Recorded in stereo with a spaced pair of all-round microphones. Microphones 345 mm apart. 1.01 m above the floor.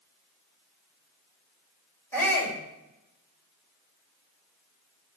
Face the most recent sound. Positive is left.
turn(degrees=5)  # may be behind; listen again after turning